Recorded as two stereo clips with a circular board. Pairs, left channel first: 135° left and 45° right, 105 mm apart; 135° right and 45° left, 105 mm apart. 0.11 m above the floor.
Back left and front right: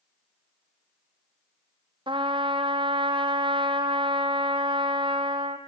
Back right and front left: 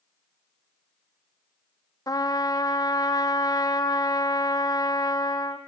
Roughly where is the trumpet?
Right.